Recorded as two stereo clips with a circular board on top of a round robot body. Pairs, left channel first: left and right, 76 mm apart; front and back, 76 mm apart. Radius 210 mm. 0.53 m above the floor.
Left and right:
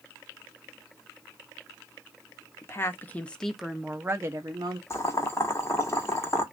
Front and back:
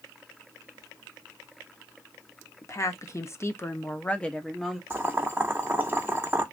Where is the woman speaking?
40° left, 1.2 m; by 4.8 s 85° right, 1.1 m.